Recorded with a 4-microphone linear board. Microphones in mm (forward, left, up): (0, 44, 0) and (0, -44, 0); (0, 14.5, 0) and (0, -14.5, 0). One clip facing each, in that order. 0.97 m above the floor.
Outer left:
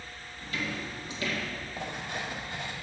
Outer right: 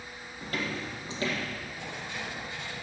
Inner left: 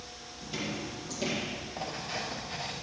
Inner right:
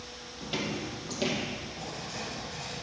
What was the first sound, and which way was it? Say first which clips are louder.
Footsteps: outer right 1 dB, inner right 3 dB; 55° right (ahead or behind).